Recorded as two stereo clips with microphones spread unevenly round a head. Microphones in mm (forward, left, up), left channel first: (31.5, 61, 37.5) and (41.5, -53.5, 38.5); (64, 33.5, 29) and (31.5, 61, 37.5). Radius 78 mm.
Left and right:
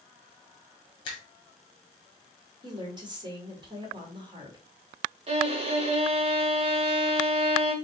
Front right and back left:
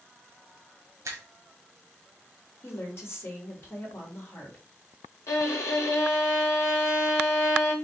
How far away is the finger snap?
About 1.4 m.